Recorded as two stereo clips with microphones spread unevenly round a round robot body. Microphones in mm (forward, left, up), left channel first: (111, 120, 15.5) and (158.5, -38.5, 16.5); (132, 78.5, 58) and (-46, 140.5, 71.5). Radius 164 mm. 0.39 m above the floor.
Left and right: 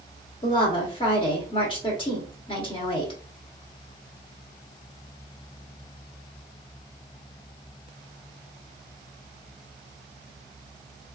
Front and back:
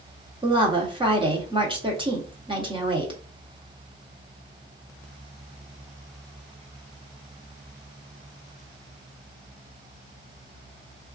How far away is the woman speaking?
About 1.1 m.